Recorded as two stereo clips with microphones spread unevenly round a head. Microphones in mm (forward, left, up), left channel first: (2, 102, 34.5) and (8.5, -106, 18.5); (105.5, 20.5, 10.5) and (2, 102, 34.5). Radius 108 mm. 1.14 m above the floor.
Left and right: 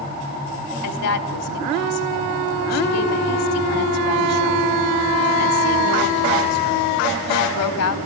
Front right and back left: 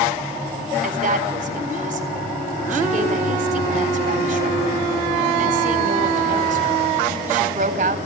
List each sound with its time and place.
0.8 s a woman speaking: 110° left, 4 m